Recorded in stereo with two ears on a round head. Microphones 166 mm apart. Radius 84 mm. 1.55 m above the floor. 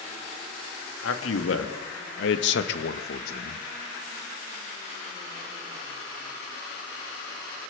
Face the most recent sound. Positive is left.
turn(degrees=45)  # may be behind; listen again after turning